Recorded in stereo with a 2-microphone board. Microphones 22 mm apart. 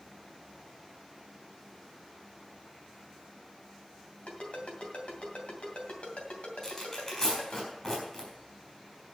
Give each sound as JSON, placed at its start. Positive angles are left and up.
{"t": 4.3, "sound": "a ringtone", "side_deg": 85, "distance_m": 2.5}
{"t": 6.6, "sound": "tearing paper", "side_deg": 25, "distance_m": 5.0}